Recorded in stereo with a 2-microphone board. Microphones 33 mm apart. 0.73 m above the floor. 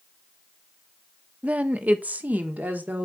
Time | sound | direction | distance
1.4 | a woman speaking | 40° right (ahead or behind) | 0.7 m